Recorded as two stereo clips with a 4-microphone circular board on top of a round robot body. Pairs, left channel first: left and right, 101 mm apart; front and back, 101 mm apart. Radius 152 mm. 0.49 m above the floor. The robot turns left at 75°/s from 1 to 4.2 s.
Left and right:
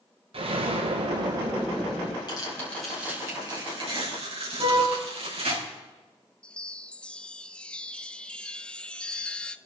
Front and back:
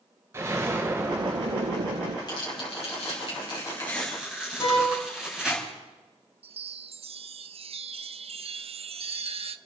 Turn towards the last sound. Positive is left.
turn(degrees=170)